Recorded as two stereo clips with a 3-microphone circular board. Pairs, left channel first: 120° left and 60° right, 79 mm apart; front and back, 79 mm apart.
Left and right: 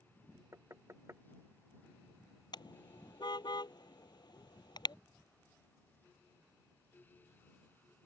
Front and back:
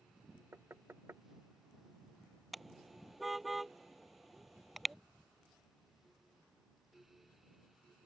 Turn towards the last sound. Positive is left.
turn(degrees=95)